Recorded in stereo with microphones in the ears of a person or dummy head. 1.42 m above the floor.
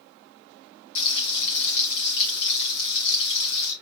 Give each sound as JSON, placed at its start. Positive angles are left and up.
{"t": 0.9, "sound": "frying", "side_deg": 55, "distance_m": 2.0}